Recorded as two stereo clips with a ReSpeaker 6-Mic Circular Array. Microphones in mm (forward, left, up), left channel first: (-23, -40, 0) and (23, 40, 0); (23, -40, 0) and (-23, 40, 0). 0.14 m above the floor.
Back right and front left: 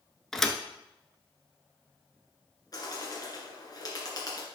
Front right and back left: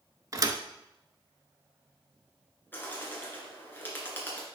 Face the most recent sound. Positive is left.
turn(degrees=-115)